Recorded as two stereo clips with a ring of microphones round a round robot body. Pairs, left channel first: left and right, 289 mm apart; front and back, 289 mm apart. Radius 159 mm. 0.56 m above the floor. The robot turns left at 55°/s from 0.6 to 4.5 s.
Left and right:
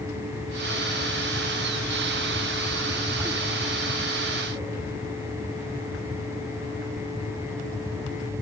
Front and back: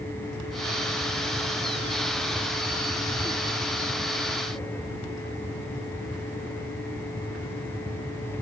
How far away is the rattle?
No rattle in this recording.